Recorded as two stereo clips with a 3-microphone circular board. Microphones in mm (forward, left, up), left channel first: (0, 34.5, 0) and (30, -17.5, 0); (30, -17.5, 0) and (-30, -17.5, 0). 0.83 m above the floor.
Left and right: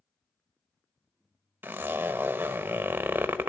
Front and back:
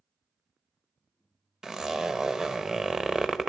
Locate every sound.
1.6 s a zipper: 100° right, 0.8 m